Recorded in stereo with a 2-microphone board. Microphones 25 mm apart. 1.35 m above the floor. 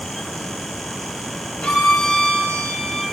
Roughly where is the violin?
Left.